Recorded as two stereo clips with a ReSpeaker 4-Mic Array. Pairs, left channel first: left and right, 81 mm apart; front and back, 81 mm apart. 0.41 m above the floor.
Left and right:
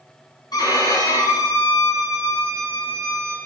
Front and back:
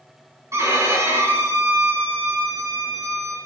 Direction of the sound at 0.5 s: 125° left.